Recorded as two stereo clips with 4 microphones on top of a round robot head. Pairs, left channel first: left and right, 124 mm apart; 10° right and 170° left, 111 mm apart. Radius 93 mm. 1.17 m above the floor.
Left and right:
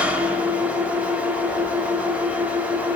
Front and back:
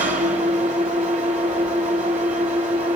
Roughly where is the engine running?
Behind.